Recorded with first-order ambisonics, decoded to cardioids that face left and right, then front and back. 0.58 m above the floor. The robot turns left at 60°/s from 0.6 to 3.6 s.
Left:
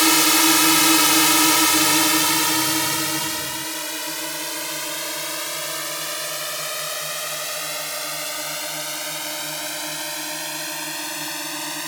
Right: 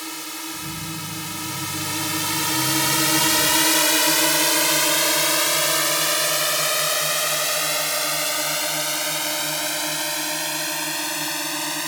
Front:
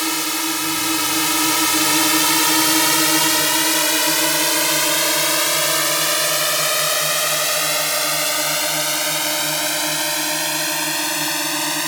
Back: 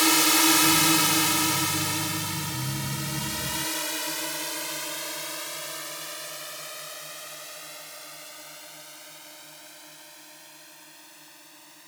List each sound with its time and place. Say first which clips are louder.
0.0 s a drone: left 16 dB, back 1 dB; 95° left; by 11.9 s 5° right